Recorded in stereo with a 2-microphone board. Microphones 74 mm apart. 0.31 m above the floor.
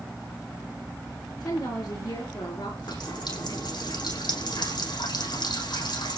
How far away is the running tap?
About 9.5 m.